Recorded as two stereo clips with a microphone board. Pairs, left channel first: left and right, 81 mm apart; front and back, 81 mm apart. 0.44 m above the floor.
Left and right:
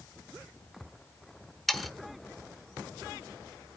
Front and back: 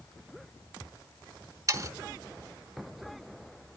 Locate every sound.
1.7 s sawing: straight behind, 1.0 m